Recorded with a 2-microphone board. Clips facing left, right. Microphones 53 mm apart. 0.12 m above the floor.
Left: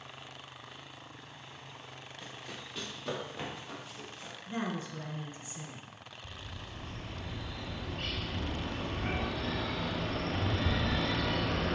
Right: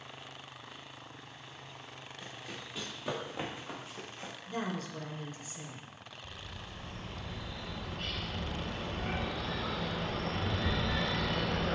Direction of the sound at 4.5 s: 20° left (ahead or behind).